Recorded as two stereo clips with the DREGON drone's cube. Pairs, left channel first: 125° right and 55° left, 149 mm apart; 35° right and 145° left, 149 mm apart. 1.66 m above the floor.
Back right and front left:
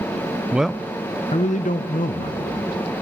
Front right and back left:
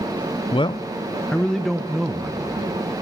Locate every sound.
0.5 s a man speaking: 15° right, 0.6 m; by 2.7 s 135° right, 1.5 m